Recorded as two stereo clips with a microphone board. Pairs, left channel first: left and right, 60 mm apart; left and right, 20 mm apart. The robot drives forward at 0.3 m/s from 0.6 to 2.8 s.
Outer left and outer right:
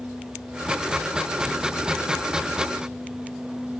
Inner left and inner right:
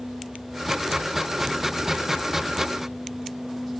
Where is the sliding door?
I don't hear a sliding door.